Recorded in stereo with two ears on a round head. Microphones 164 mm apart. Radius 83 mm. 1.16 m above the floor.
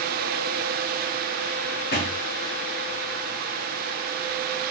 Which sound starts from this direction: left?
A thud, at 1.9 s.